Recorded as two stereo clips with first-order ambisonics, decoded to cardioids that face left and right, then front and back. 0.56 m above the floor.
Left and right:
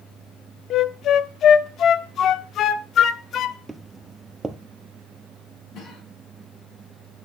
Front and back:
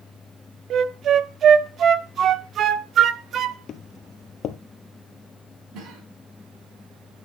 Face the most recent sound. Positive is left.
turn(degrees=140)